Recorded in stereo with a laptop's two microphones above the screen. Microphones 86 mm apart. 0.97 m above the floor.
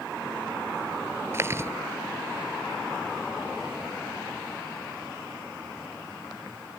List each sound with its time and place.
1.3 s chewing: 30° right (ahead or behind)